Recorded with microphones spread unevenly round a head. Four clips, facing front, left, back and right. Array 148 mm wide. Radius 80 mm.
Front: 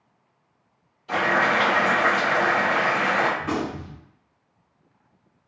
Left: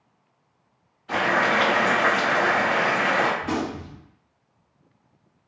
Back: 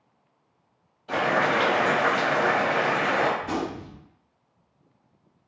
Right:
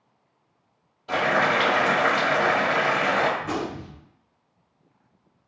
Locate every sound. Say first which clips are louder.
1.1 s boiling: even, front 1 dB; 110° right, 1.4 m
3.4 s a gunshot: left 2 dB, front 2 dB; 5° right, 1.6 m